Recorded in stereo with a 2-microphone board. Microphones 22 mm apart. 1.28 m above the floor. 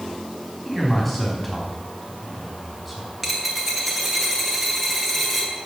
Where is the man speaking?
5° left (ahead or behind), 4 m.